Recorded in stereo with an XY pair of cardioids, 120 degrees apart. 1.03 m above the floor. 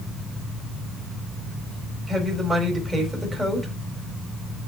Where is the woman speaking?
10° right, 3.5 m.